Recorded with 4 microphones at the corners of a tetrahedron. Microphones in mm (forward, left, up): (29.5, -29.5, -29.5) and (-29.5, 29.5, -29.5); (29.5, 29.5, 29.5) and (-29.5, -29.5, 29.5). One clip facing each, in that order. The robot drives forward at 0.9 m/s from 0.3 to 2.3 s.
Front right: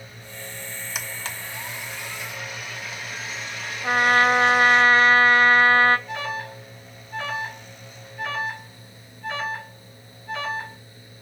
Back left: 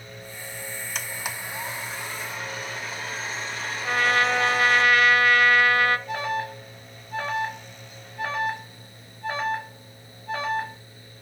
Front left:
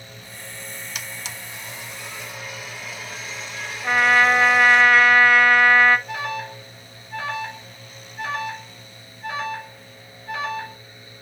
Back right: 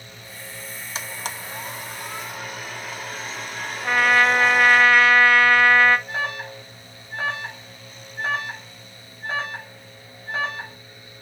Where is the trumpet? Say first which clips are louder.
Front right 4 dB, front left 1 dB; 40° right, 1.1 m.